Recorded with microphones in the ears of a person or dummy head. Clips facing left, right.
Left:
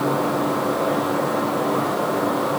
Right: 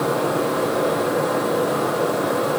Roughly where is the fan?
Right.